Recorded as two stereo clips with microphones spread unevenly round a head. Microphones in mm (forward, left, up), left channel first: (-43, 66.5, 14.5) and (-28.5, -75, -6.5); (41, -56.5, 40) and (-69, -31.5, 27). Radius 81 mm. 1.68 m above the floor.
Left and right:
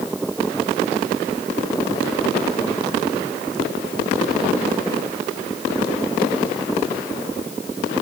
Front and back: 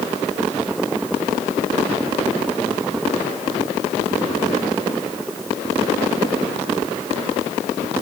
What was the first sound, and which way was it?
Only background noise.